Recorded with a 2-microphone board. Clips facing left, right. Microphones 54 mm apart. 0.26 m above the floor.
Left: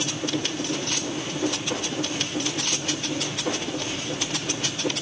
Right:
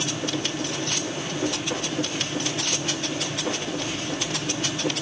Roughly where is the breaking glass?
I don't hear breaking glass.